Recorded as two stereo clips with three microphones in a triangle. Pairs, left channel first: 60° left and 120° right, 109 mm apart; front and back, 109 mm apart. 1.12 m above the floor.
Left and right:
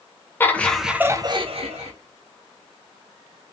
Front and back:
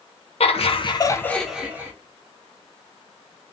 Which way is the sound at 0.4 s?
10° right.